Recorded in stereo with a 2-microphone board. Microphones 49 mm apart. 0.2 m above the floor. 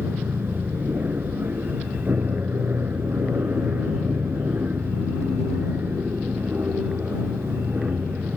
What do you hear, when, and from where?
0.0 s an aircraft: 40° right (ahead or behind); by 8.4 s 35° right (ahead or behind)